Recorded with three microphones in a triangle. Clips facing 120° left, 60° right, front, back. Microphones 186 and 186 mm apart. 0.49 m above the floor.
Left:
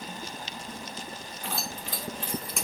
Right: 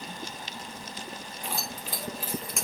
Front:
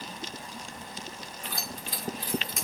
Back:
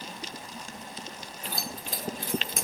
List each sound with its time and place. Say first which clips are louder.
1.4 s keys jangling: left 1 dB, back 2 dB; 135° right, 1.7 m; by 2.7 s 150° right, 1.1 m